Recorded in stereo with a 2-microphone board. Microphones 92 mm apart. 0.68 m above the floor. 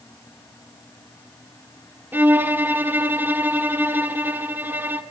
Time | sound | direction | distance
2.1 | a violin | 25° right (ahead or behind) | 1.6 m